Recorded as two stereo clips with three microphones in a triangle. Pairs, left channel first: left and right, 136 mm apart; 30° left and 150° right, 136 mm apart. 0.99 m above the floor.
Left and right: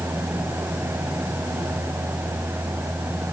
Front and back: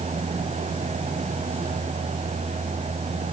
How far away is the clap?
I don't hear a clap.